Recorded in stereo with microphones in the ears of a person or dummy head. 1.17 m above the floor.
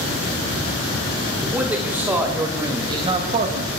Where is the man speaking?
10° right (ahead or behind), 3.5 m; by 3.7 s 50° right (ahead or behind), 1.5 m.